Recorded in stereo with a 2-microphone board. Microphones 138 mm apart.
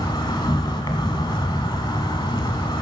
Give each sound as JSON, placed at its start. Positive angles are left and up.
{"t": 0.0, "sound": "an insect", "side_deg": 30, "distance_m": 1.0}